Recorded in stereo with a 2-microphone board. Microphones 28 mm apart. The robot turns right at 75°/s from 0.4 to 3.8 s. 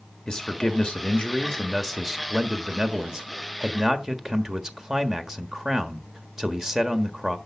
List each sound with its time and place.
0.3 s a man speaking: 60° left, 1.4 m; by 7.4 s 45° right, 1.4 m